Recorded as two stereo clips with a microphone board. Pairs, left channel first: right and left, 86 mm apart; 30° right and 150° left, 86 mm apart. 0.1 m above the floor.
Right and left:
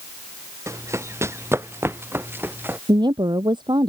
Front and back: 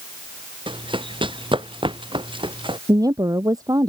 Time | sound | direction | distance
0.7 | running footsteps | 145° left | ?
2.9 | a woman speaking | 110° left | ?